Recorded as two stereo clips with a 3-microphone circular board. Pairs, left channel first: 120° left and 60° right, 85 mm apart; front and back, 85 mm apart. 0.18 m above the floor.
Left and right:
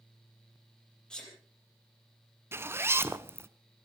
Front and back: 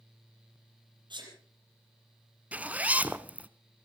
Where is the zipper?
110° right, 0.7 m.